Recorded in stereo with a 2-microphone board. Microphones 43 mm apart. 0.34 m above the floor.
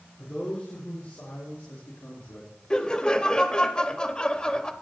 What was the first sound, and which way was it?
A man speaking, 40° left (ahead or behind).